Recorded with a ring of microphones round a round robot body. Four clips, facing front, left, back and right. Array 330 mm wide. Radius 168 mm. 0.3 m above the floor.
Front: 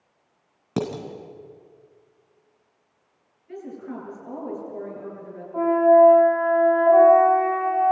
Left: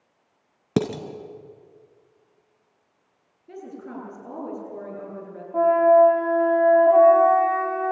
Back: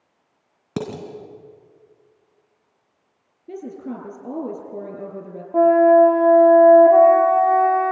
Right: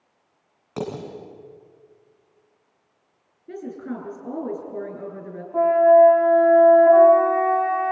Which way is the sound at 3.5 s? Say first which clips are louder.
Right 5 dB, back 4 dB; 155° right.